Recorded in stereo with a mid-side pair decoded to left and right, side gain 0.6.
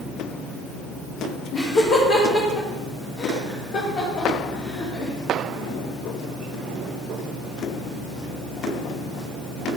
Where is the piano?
I don't hear a piano.